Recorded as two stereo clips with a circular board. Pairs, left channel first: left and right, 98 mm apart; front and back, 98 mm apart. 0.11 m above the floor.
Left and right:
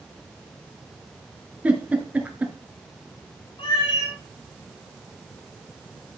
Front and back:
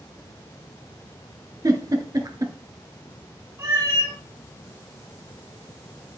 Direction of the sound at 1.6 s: 155° right.